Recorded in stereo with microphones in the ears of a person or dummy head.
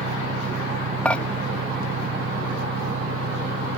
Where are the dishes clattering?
10° left (ahead or behind).